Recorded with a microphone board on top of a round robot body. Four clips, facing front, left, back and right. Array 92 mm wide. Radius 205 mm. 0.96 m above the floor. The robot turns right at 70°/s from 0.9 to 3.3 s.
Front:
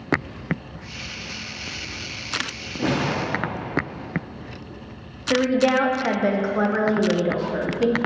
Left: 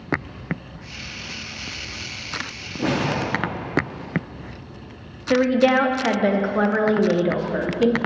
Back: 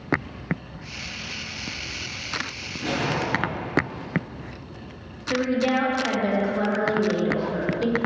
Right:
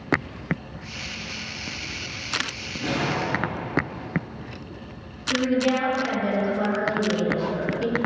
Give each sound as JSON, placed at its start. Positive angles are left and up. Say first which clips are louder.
{"t": 2.8, "sound": "a whoosh", "louder": "left 3 dB, front 3 dB", "azimuth_deg": 45, "distance_m": 0.6}
{"t": 5.3, "sound": "a woman speaking", "louder": "left 5 dB, front 4 dB", "azimuth_deg": 70, "distance_m": 0.9}